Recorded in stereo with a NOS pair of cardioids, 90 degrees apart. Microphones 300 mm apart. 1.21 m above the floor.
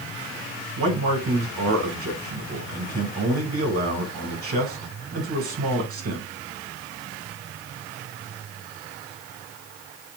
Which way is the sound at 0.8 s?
50° right.